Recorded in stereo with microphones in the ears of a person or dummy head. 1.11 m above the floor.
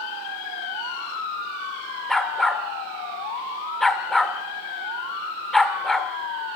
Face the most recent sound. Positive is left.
turn(degrees=5)  # may be behind; listen again after turning